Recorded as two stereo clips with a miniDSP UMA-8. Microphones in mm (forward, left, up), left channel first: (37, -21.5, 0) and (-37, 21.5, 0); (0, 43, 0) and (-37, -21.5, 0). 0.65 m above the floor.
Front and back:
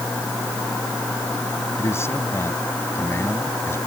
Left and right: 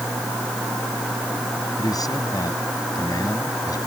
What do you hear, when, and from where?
1.8 s a man speaking: 30° left